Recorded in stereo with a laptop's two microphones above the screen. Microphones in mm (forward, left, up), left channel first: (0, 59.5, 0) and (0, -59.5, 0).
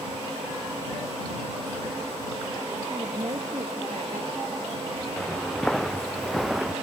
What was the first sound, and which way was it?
A woman speaking, 45° right (ahead or behind).